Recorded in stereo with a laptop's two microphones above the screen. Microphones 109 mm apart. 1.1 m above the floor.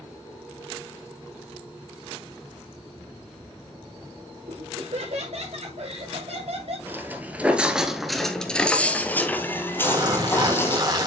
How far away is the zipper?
About 3 m.